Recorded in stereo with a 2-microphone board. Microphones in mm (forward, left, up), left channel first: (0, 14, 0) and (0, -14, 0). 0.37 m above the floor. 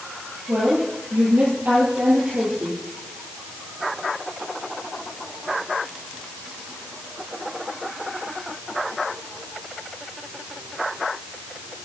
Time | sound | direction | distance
0.5 | a woman speaking | 50° right (ahead or behind) | 7.5 m